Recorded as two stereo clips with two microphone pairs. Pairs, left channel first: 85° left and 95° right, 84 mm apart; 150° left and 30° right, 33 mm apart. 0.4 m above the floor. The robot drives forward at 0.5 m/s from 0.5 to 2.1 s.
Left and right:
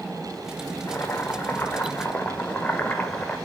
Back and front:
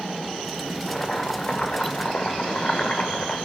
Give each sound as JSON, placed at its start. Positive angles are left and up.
{"t": 0.9, "sound": "boiling", "azimuth_deg": 90, "distance_m": 1.1}